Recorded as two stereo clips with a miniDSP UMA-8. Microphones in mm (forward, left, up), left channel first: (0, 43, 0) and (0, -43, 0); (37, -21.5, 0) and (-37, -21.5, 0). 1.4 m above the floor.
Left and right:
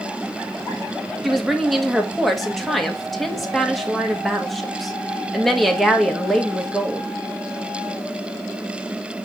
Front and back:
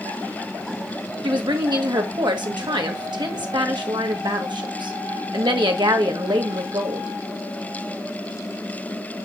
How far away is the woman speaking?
About 1.5 m.